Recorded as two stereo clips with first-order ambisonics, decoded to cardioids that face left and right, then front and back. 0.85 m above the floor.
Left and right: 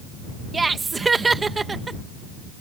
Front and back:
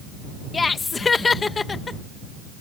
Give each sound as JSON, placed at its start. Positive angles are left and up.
{"t": 0.5, "sound": "laughter", "azimuth_deg": -40}